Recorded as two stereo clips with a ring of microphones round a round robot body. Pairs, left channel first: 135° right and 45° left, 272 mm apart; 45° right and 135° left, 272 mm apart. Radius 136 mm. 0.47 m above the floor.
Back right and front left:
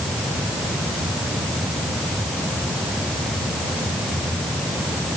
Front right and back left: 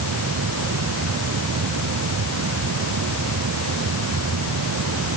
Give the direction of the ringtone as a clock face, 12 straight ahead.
No ringtone in this recording.